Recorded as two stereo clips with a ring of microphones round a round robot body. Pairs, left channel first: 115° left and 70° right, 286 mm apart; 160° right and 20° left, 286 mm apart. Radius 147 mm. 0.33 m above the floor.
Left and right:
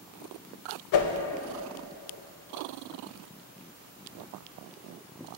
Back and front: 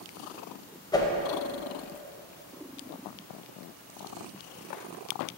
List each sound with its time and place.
0.9 s a whoosh: 125° left, 0.5 m